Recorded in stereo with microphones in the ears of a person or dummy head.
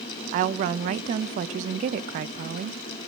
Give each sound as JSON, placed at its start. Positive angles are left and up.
{"t": 0.3, "sound": "a woman speaking", "side_deg": -40, "distance_m": 0.6}